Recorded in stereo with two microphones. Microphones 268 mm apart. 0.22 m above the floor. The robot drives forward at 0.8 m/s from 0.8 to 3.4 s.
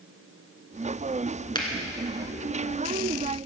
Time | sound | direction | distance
1.6 | a finger snap | 20° left (ahead or behind) | 1.9 m